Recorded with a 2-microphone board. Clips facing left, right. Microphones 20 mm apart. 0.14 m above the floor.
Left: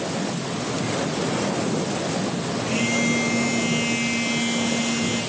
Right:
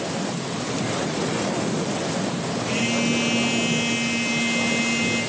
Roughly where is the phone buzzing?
Right.